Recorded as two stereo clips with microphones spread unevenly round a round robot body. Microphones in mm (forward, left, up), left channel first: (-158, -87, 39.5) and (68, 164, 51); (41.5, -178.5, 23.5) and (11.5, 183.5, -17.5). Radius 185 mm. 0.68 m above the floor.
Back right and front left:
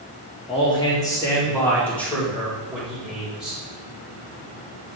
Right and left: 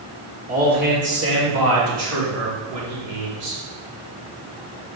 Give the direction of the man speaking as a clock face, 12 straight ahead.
7 o'clock.